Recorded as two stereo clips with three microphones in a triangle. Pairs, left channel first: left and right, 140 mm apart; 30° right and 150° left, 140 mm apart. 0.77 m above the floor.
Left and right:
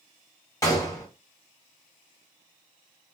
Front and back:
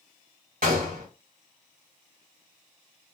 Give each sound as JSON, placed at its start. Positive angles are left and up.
{"t": 0.6, "sound": "a gunshot", "azimuth_deg": 155, "distance_m": 1.7}